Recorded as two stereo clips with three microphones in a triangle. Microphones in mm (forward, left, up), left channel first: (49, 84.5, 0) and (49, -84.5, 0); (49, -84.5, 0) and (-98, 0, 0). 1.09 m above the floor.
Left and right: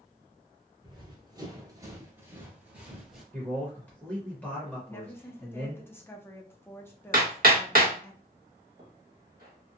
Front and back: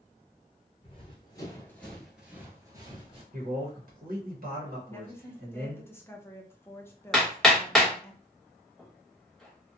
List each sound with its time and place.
0.8 s running footsteps: 50° right, 1.3 m; by 3.2 s 175° right, 1.3 m
3.3 s a man speaking: 170° left, 0.9 m
4.9 s a woman speaking: 30° left, 0.6 m
7.1 s hammering: 120° right, 0.9 m